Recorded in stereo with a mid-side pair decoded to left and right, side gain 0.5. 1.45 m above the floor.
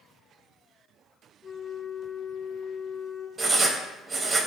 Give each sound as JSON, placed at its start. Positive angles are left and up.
{"t": 1.4, "sound": "a flute", "azimuth_deg": 20, "distance_m": 0.6}
{"t": 3.4, "sound": "writing", "azimuth_deg": -35, "distance_m": 0.5}